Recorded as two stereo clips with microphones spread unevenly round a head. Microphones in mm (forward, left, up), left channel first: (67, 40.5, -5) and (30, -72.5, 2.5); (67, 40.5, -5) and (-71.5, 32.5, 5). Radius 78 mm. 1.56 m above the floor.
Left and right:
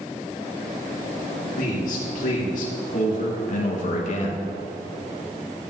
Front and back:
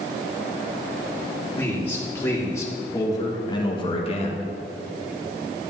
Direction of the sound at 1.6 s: 80° left.